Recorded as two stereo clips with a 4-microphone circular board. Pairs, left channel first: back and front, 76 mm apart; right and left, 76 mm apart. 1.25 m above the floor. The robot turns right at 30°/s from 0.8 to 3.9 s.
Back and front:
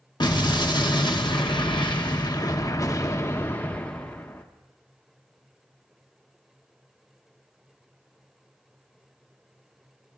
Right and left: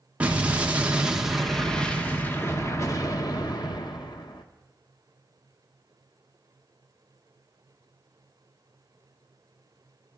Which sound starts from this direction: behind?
An explosion, at 0.2 s.